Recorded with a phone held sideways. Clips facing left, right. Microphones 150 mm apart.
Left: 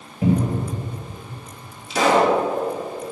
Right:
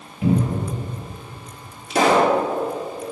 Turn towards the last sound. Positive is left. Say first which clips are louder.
# right 1 dB
turn(degrees=-50)  # may be behind; listen again after turning